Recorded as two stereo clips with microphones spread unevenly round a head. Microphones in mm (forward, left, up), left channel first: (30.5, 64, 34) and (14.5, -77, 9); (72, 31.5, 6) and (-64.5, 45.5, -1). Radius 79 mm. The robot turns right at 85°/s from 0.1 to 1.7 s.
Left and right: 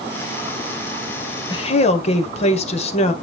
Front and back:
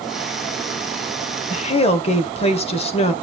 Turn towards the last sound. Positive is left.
turn(degrees=40)